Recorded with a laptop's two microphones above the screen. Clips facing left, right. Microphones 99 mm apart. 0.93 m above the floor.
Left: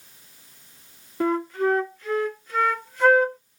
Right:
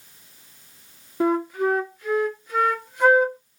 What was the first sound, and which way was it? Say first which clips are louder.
A flute: right 1 dB; 15° right (ahead or behind).